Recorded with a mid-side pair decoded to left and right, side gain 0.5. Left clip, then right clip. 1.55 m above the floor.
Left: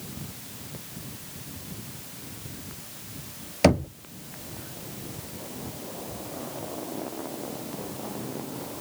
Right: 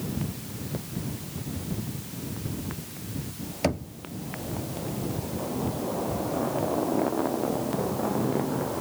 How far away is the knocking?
About 0.6 m.